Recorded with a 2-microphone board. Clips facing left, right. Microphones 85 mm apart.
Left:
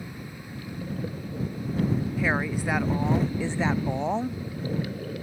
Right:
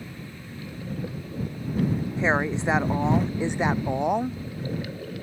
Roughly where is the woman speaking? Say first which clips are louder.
Right 6 dB; right.